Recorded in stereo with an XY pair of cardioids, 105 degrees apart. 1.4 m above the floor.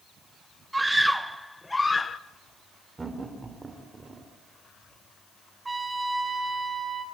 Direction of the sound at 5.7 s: 20° right.